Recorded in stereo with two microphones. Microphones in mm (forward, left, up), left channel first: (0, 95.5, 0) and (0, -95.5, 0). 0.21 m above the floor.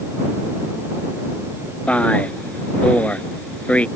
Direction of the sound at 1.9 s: 5° left (ahead or behind).